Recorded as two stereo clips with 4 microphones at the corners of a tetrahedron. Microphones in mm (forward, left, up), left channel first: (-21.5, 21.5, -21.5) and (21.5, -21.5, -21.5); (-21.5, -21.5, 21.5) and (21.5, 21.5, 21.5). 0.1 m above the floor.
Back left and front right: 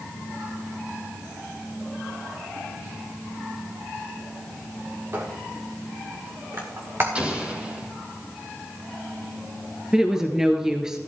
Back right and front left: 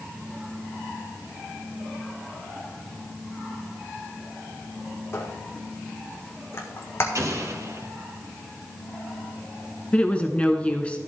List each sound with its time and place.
5.1 s a squeak: 90° right, 2.5 m
7.2 s an explosion: 25° left, 2 m
9.9 s a woman speaking: 105° right, 1.2 m